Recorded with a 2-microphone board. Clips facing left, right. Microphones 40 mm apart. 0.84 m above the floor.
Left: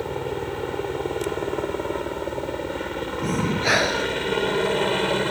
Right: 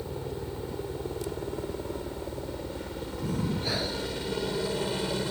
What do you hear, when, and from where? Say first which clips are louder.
0.0 s a helicopter: left 8 dB; 65° left (ahead or behind); by 5.3 s 50° left (ahead or behind)
3.2 s breathing: left 8 dB; 80° left